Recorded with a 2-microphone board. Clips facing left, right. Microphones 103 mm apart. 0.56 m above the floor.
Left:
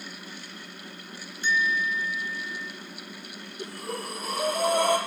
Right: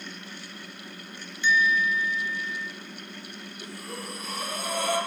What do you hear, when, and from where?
1.4 s a bell: 45° left (ahead or behind), 1.8 m
3.6 s breathing: 70° left (ahead or behind), 8.5 m